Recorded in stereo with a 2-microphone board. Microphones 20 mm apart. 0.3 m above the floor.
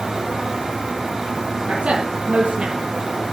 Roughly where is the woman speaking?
Right.